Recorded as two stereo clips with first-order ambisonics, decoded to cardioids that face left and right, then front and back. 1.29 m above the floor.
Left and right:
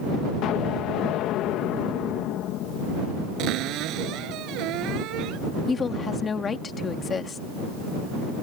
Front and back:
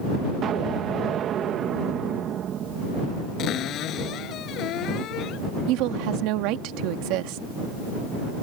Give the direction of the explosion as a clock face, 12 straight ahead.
8 o'clock.